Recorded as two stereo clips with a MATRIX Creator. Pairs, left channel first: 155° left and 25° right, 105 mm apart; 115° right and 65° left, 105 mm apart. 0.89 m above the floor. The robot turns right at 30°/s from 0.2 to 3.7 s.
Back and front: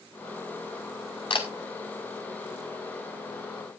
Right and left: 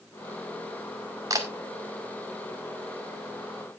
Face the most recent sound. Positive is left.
turn(degrees=-165)